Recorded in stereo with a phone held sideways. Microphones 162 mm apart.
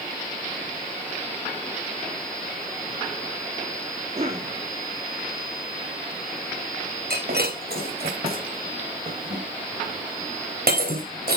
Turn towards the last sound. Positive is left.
turn(degrees=-75)  # may be behind; listen again after turning